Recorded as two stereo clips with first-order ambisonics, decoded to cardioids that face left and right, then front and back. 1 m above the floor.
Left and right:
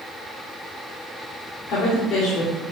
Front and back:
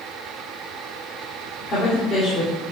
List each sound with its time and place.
1.7 s a woman speaking: 60° left, 2.5 m